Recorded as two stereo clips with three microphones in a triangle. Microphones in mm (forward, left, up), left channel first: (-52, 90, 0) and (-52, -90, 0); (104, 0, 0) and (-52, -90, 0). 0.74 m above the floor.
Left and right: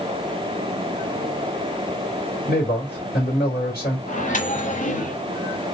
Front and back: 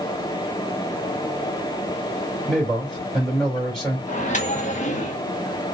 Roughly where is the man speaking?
Behind left.